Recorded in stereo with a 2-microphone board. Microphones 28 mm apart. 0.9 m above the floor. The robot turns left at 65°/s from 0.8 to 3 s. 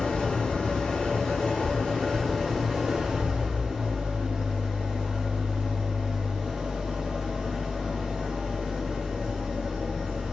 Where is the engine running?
115° left, 1.2 m; by 10.3 s 25° right, 1.2 m.